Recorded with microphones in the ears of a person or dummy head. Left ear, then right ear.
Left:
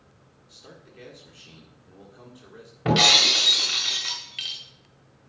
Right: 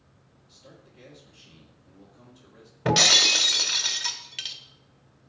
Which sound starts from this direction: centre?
Breaking glass, at 2.9 s.